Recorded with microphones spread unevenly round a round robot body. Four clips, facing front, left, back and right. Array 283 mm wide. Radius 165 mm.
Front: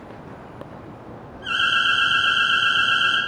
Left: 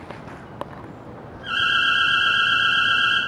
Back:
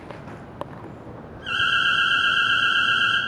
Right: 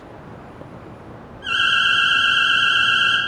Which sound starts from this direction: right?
An alarm, at 1.4 s.